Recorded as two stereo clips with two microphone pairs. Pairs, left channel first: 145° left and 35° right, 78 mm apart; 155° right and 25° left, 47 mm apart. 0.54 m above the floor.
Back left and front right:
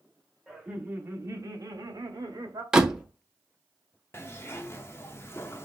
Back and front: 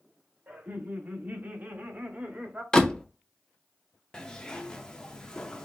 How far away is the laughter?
About 0.8 m.